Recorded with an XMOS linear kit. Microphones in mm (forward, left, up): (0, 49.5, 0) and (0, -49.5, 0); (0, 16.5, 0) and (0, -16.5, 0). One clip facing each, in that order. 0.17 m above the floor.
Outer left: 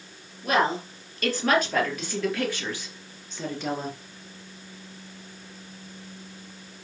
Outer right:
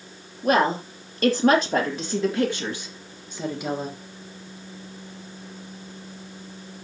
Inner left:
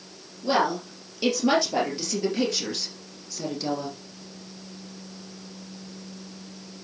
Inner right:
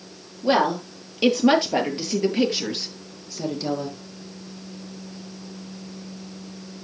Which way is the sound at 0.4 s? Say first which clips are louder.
Outer right 3 dB, inner right 3 dB; 40° right (ahead or behind).